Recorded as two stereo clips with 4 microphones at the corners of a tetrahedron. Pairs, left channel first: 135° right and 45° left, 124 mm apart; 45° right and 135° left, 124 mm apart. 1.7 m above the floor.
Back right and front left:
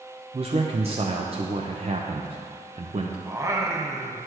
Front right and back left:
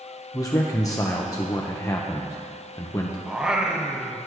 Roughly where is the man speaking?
Ahead.